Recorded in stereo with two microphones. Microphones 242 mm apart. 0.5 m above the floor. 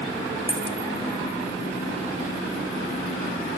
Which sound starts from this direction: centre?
A dropped coin, at 0.5 s.